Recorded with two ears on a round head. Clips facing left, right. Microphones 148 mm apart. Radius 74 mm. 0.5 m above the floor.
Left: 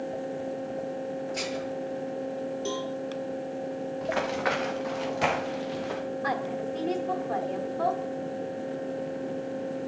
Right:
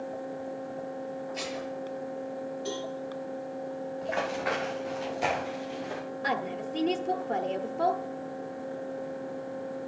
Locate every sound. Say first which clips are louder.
1.3 s dishes clattering: left 3 dB; 55° left (ahead or behind), 6 m
2.6 s a cowbell: left 2 dB; 55° left (ahead or behind), 3.5 m
4.0 s running footsteps: left 3 dB; 75° left (ahead or behind), 5 m
6.2 s a woman speaking: even; 30° right (ahead or behind), 0.8 m